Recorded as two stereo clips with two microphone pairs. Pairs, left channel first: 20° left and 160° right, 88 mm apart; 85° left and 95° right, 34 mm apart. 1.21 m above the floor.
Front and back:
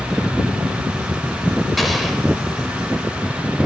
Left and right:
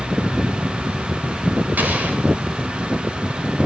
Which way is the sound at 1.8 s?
70° right.